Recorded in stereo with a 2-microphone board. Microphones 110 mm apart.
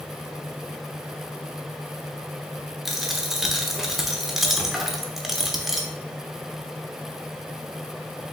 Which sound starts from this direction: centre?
A dropped coin, at 2.9 s.